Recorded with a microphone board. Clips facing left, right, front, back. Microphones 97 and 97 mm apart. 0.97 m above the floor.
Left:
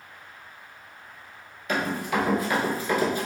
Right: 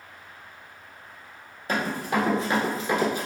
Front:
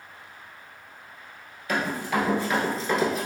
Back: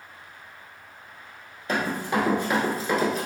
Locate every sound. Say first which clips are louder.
1.7 s running footsteps: even, back 1 dB; 130° right, 1.3 m; by 3.3 s 85° right, 0.9 m